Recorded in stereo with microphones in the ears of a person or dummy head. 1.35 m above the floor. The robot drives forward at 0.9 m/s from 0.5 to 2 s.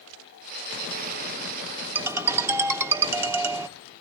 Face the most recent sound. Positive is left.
turn(degrees=-10)  # may be behind; listen again after turning